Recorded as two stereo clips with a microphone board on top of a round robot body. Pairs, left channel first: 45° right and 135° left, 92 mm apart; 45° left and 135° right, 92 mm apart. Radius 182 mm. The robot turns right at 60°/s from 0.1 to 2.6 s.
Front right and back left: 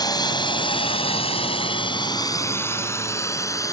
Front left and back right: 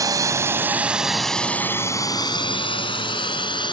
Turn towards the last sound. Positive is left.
turn(degrees=10)